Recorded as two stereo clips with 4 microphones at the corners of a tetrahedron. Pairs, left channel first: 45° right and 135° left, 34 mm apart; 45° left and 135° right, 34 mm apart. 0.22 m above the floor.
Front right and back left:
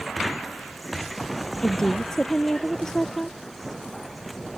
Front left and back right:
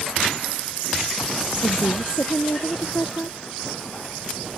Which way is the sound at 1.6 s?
30° left.